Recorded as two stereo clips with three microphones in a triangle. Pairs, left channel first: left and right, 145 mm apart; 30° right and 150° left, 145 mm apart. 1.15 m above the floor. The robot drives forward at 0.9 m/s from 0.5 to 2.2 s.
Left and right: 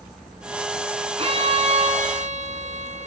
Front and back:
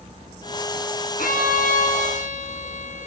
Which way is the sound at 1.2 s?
40° right.